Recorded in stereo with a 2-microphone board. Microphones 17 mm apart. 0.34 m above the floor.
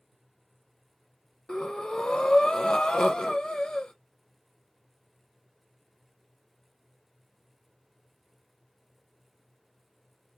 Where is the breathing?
70° left (ahead or behind), 0.6 m.